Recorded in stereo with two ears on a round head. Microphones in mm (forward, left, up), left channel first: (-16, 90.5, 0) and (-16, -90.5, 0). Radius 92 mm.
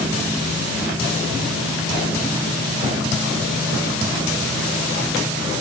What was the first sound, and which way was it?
Only background noise.